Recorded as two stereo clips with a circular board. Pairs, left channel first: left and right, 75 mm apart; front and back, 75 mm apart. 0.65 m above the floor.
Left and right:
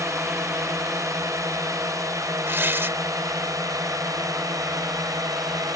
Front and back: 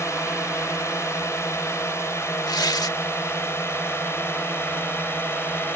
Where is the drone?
45° right; by 5.8 s 55° right.